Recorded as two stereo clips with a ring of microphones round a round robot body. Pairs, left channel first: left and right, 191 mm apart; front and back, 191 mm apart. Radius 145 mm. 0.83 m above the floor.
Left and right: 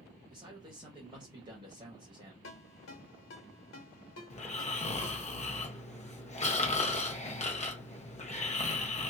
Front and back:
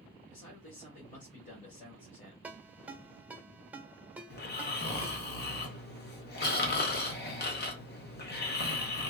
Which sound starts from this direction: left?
A ringtone, at 2.4 s.